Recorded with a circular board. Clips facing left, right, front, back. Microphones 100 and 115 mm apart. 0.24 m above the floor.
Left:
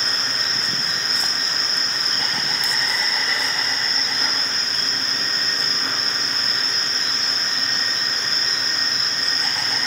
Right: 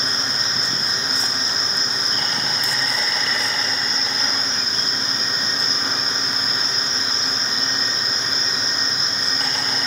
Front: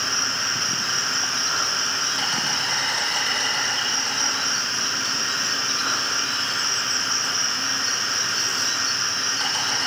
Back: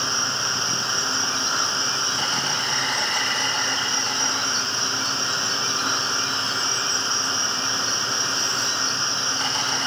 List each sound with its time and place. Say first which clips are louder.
0.0 s an insect: right 1 dB, back 1 dB; 80° right, 4.5 m